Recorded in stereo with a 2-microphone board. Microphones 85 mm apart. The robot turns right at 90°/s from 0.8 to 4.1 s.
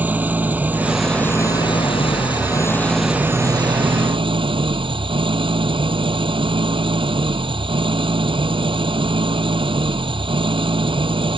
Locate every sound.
0.0 s an engine running: 20° right; by 11.4 s 80° right